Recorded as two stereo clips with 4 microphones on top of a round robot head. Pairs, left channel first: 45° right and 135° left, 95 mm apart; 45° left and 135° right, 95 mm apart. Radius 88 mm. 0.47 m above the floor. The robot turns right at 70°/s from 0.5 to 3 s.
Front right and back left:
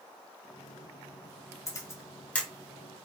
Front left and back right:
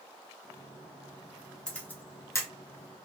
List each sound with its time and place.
1.7 s a camera shutter: 30° right, 1.1 m; by 2.5 s 30° left, 1.1 m